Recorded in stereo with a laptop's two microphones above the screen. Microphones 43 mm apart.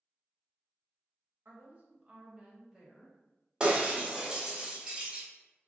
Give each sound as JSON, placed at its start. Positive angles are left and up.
{"t": 1.4, "sound": "a woman speaking", "side_deg": -50, "distance_m": 1.2}
{"t": 3.6, "sound": "breaking glass", "side_deg": -20, "distance_m": 0.9}